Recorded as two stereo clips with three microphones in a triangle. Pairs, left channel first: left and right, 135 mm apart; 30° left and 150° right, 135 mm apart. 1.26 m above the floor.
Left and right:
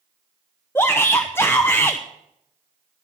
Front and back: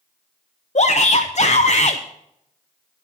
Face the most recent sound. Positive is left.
turn(degrees=20)